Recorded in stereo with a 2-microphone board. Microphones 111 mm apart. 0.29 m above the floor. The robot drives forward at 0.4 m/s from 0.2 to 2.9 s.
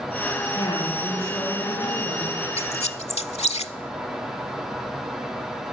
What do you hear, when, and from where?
0.6 s a woman speaking: 60° left (ahead or behind), 6.5 m; by 2.5 s 65° left (ahead or behind), 6 m
2.6 s a squeak: 75° left (ahead or behind), 0.6 m; by 3.7 s 85° left, 0.6 m